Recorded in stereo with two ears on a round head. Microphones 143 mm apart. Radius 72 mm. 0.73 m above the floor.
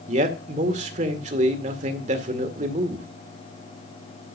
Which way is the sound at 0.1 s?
45° right (ahead or behind).